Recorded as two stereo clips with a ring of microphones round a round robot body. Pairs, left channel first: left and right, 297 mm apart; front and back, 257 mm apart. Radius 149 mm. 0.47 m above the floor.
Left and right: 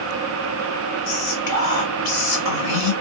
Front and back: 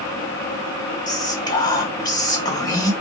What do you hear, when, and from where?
1.1 s whispering: 75° left, 1.1 m